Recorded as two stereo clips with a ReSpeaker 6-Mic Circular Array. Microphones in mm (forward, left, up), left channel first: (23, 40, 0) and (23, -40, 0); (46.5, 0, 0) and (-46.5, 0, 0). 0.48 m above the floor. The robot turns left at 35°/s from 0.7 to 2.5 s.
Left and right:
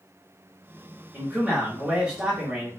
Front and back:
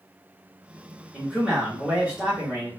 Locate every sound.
1.1 s a man speaking: 100° right, 1.2 m; by 2.7 s 150° right, 1.2 m